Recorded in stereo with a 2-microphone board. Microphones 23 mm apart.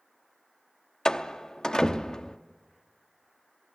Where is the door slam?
35° left (ahead or behind), 0.8 m.